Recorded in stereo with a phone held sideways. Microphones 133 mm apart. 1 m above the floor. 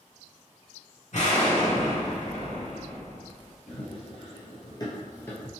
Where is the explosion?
60° left (ahead or behind), 1.4 m.